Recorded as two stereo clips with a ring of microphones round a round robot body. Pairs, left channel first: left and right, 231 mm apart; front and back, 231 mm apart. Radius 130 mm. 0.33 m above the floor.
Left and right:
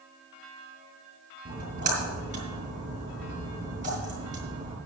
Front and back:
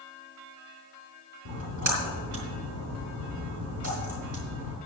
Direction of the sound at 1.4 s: 150° right.